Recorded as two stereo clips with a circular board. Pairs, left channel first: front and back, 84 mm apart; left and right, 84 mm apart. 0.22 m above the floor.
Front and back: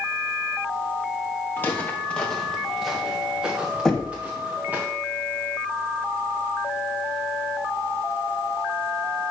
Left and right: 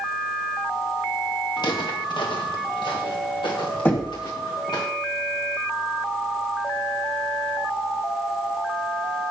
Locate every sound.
1.6 s footsteps: 65° left, 1.6 m; by 4.8 s 110° left, 3.5 m
3.9 s knocking: 75° left, 1.3 m